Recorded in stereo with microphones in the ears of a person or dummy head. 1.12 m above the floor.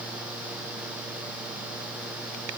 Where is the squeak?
I don't hear a squeak.